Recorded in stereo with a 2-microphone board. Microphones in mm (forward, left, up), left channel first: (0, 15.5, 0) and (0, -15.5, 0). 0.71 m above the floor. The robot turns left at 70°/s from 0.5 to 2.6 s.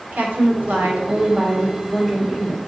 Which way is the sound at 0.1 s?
80° right.